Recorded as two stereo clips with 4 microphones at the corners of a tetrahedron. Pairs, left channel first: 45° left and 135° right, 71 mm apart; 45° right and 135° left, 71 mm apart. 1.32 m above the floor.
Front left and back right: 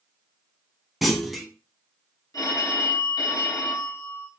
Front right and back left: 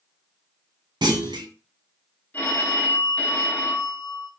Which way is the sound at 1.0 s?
135° left.